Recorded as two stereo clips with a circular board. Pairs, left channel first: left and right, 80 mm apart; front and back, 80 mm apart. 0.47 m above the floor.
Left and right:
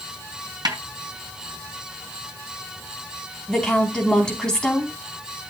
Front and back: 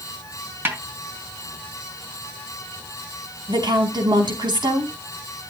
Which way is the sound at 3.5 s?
170° left.